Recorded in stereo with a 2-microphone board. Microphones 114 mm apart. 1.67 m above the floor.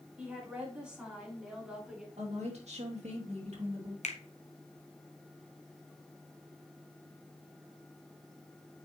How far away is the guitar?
No guitar in this recording.